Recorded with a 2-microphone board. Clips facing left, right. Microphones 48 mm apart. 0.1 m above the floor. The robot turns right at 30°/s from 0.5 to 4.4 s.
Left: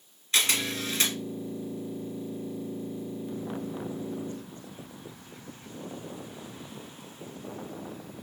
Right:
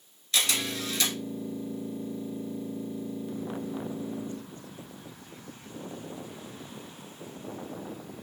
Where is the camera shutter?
30° left (ahead or behind), 2.0 m.